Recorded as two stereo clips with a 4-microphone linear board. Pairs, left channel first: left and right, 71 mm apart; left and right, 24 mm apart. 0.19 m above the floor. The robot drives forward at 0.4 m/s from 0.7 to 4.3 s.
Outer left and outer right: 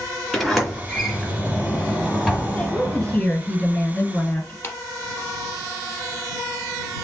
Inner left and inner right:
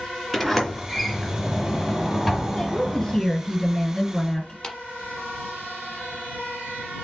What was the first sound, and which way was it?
A sliding door, centre (ahead or behind).